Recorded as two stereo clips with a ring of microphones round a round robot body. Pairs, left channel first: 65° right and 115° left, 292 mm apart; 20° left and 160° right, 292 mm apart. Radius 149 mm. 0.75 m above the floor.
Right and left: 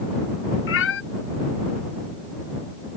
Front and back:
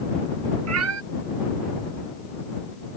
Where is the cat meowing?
115° right.